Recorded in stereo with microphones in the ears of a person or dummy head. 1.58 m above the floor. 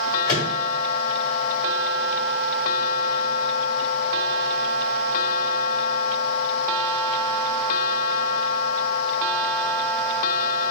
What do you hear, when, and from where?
0.3 s a microwave: 25° left (ahead or behind), 1.8 m